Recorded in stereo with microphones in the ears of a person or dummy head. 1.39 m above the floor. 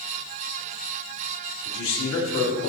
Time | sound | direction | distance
1.6 | a man speaking | 85° left | 2.5 m